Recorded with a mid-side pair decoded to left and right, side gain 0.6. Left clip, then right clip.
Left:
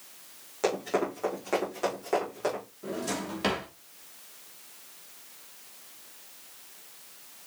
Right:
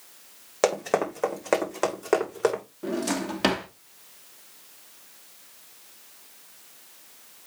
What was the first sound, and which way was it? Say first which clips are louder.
Running footsteps: right 4 dB; 55° right.